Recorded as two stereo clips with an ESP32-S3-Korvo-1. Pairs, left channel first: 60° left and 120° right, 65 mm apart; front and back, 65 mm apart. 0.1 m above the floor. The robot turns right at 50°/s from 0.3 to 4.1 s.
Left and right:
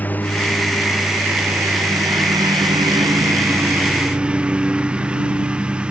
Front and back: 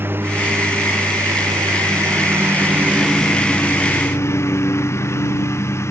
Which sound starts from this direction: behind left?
A lawn mower, at 0.0 s.